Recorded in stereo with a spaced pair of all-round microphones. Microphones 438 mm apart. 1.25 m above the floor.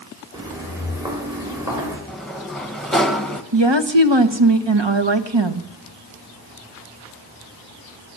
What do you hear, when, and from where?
0.3 s footsteps: 10° right (ahead or behind), 9 m; by 2.0 s 5° right (ahead or behind), 7.5 m
2.1 s a sliding door: centre (ahead or behind), 1.4 m
3.5 s a woman speaking: 75° right (ahead or behind), 1.5 m